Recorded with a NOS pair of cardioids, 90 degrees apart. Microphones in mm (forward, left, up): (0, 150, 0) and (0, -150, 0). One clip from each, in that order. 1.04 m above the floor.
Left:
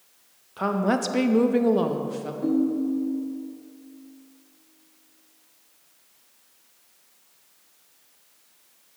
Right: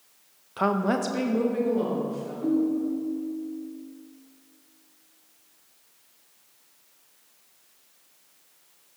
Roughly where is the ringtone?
Ahead.